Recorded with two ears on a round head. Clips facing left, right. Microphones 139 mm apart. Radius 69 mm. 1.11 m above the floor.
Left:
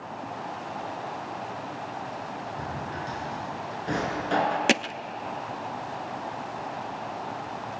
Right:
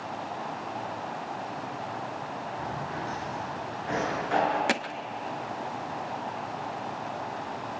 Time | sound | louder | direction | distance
2.6 | a drawer | even | 40° left (ahead or behind) | 6.5 m
4.7 | hammering | left 4 dB | 25° left (ahead or behind) | 0.5 m